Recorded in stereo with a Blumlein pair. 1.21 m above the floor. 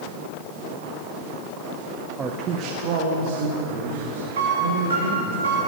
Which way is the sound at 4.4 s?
65° right.